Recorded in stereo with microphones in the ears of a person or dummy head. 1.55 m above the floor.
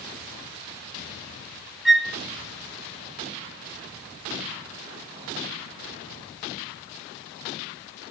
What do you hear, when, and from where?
1.9 s a flute: 5° right (ahead or behind), 1.9 m